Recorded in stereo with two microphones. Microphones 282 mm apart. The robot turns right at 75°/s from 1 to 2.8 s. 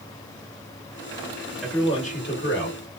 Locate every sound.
1.6 s a man speaking: 5° left, 0.9 m; by 2.8 s 90° left, 0.9 m